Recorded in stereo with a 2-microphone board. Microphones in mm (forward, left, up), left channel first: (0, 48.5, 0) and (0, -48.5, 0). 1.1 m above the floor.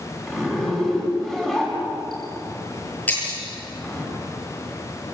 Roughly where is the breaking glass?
Centre.